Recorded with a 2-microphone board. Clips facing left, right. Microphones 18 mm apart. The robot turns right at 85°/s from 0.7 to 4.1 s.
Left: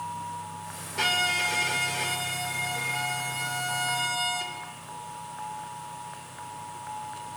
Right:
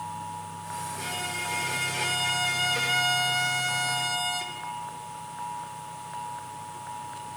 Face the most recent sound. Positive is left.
turn(degrees=5)